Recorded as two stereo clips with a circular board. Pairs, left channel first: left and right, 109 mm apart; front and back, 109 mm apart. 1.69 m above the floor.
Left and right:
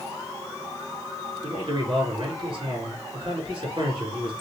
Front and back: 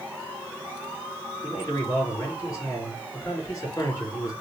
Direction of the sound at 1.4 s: 60° right.